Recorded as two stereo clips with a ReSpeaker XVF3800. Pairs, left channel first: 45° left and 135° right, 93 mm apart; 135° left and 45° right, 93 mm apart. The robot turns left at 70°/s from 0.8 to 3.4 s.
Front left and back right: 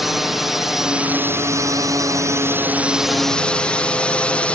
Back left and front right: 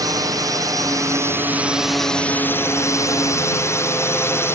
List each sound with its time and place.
0.0 s a drone: 50° right; by 4.6 s 110° left